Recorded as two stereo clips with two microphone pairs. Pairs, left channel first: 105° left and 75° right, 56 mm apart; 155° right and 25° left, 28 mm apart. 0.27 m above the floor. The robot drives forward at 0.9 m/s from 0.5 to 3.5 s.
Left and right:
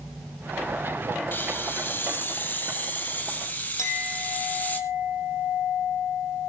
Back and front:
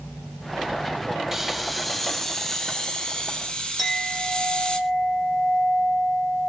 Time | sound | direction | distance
1.3 | a hiss | 105° left | 1.4 m
3.8 | a clink | 125° left | 6 m